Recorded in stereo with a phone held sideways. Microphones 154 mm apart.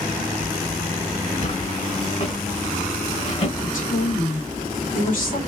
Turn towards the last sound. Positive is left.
turn(degrees=60)  # may be behind; listen again after turning